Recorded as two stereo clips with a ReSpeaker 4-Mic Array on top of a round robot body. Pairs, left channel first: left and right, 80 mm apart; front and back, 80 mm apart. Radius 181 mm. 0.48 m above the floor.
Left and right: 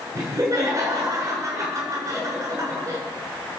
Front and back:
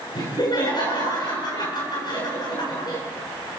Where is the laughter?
35° right, 8.5 m.